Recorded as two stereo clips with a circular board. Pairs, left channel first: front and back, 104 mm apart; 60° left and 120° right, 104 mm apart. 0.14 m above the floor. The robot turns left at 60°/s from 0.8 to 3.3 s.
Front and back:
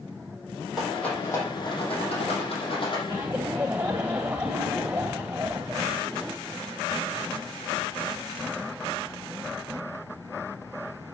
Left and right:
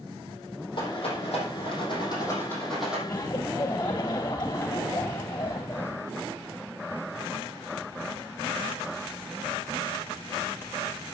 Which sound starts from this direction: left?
A rattle, at 0.8 s.